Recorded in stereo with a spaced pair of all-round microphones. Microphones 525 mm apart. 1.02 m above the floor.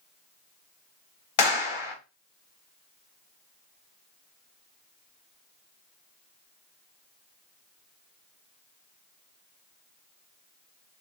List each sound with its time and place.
1.4 s a clap: 55° left (ahead or behind), 0.9 m